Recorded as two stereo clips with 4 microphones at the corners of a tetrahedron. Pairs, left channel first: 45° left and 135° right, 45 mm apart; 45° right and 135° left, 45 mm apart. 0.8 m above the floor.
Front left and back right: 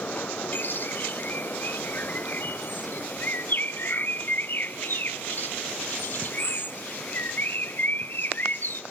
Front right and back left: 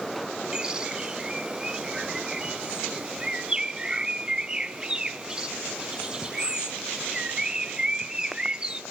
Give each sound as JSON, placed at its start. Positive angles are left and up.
{"t": 0.5, "sound": "a bird", "azimuth_deg": 65, "distance_m": 1.0}